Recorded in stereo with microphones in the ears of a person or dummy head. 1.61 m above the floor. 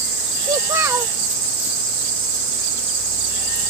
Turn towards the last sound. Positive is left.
turn(degrees=-20)  # may be behind; listen again after turning